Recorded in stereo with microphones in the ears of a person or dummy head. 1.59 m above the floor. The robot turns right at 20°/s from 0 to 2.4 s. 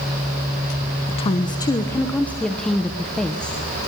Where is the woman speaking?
25° left (ahead or behind), 1.1 m; by 3.6 s centre (ahead or behind), 1.1 m.